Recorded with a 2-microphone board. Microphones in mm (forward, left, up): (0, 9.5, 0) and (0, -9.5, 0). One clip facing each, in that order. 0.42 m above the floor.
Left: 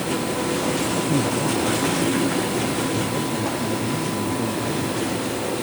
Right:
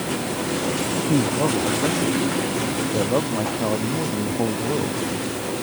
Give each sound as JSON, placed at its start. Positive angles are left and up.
{"t": 1.0, "sound": "a man speaking", "side_deg": -80}